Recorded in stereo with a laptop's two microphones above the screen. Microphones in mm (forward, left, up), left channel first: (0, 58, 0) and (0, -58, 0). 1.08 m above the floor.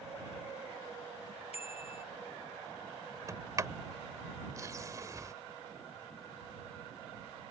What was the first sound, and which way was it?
A bicycle bell, 60° left (ahead or behind).